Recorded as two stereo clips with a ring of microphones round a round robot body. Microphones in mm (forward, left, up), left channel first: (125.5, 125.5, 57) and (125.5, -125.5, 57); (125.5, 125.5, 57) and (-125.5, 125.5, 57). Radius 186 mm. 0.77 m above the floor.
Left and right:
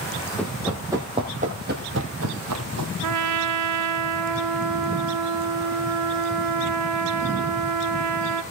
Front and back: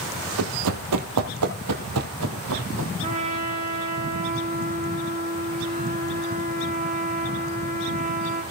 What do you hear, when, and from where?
0.4 s running footsteps: 175° left, 1.4 m; by 2.9 s 125° right, 1.5 m
3.0 s a trumpet: 110° right, 1.3 m